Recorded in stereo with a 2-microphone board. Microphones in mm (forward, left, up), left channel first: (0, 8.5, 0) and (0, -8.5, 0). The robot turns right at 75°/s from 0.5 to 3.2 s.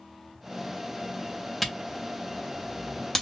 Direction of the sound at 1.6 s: 5° left (ahead or behind).